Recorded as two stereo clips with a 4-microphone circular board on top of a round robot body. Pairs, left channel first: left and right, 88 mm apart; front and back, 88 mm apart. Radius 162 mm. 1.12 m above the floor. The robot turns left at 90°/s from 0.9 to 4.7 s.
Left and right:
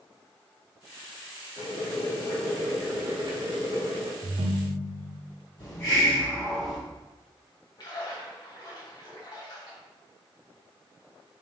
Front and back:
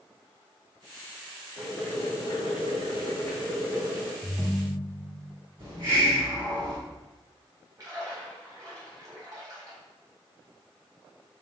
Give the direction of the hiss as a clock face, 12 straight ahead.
7 o'clock.